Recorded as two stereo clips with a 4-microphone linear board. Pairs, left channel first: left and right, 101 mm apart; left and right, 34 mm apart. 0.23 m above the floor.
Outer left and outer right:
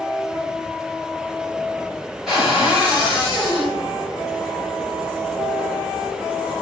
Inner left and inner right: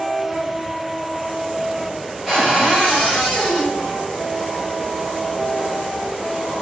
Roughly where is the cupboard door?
Centre.